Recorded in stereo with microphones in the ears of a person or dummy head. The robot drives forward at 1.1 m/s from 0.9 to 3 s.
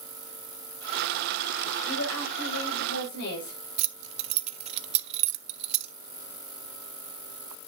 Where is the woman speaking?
85° left, 5 m; by 3.6 s 75° left (ahead or behind), 5 m.